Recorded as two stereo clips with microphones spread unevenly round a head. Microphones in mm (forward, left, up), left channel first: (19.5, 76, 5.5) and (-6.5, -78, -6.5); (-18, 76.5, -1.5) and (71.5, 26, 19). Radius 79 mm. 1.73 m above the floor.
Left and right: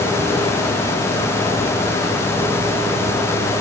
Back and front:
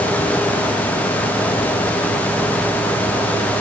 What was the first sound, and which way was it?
Only background noise.